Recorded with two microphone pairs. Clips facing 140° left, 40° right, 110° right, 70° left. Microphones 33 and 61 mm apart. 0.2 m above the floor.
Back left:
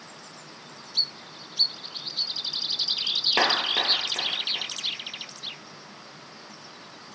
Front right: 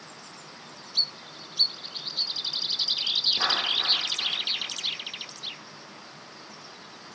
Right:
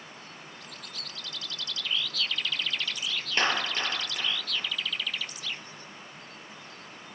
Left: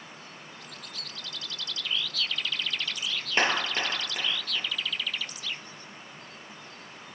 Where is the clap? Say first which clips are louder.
Back left 3 dB, left 1 dB; 135° left, 3 m.